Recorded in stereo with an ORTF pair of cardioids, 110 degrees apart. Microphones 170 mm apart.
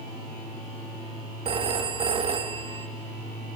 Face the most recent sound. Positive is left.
turn(degrees=-35)